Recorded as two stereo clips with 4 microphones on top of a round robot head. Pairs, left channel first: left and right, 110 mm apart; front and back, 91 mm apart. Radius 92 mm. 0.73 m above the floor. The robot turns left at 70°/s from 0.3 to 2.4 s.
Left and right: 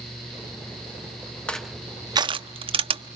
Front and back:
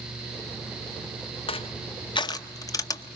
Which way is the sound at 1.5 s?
10° left.